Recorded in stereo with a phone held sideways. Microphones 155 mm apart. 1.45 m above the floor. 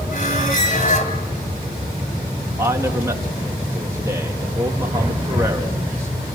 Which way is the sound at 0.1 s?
60° left (ahead or behind).